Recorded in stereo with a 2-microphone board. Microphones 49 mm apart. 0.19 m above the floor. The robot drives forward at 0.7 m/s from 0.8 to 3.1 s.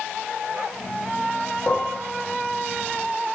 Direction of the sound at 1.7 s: 35° left (ahead or behind).